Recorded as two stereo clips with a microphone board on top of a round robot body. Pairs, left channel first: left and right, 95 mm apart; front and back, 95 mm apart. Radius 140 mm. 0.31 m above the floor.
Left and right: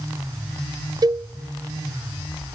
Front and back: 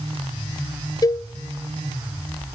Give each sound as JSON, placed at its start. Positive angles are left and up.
{"t": 1.0, "sound": "a cowbell", "azimuth_deg": -45, "distance_m": 0.5}